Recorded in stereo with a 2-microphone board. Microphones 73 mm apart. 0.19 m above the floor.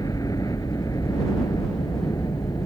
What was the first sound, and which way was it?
A helicopter, 55° left (ahead or behind).